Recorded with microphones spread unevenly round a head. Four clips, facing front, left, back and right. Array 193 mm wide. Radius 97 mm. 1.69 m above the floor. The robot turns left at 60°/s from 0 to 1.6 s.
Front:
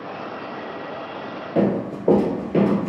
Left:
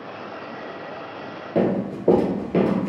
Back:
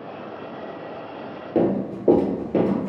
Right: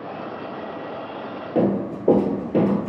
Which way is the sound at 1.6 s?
170° left.